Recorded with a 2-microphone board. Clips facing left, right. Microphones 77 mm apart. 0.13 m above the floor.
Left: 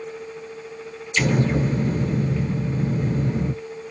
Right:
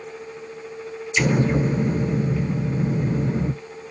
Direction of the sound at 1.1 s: 10° right (ahead or behind).